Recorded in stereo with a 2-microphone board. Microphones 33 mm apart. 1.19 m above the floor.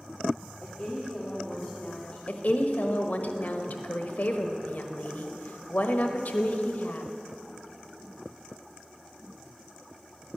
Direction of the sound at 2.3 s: 60° left (ahead or behind).